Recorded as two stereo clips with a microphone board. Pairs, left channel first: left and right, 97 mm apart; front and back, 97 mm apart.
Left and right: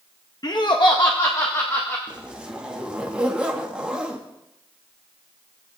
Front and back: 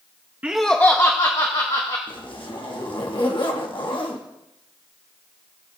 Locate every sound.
0.4 s laughter: 110° left, 0.6 m; by 2.0 s 35° left, 1.8 m
2.1 s a zipper: 15° right, 1.1 m